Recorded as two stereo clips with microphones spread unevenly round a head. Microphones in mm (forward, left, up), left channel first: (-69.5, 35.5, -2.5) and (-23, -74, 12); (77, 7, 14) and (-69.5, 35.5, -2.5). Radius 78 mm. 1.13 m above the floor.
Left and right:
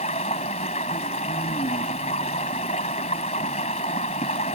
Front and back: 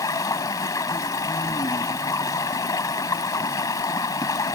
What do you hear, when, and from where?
0.0 s running water: 55° left